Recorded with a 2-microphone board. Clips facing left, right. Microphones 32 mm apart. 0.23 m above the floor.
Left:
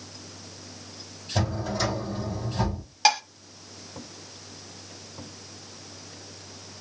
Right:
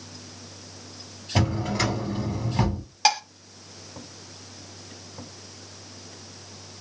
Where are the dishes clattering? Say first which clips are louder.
Even; centre (ahead or behind), 0.7 m.